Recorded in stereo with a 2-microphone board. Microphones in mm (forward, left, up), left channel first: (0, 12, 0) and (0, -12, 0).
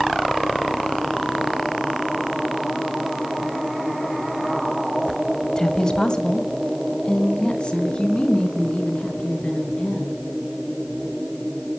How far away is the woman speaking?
About 1.8 m.